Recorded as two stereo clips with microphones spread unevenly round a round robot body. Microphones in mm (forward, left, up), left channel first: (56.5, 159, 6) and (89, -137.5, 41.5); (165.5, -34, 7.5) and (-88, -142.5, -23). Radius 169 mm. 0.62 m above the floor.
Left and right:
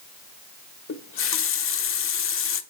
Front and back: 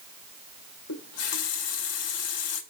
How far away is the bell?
I don't hear a bell.